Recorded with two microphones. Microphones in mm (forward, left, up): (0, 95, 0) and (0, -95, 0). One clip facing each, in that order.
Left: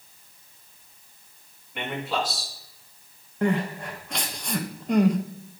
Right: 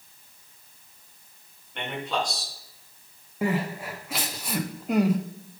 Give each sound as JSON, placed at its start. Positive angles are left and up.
{"t": 1.8, "sound": "a man speaking", "side_deg": 5, "distance_m": 3.0}
{"t": 3.4, "sound": "crying", "side_deg": -5, "distance_m": 0.8}